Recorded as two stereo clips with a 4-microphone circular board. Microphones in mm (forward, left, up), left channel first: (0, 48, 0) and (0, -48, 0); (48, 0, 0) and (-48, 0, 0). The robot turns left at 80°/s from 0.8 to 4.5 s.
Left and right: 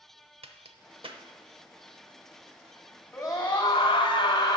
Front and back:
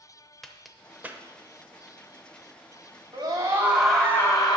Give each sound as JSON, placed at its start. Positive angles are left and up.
{"t": 0.4, "sound": "a crack", "azimuth_deg": -90, "distance_m": 0.7}
{"t": 3.1, "sound": "a scream", "azimuth_deg": 150, "distance_m": 2.5}